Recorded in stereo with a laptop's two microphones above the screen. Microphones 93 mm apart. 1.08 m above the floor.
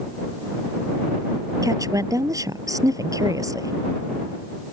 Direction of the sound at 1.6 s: 35° right (ahead or behind).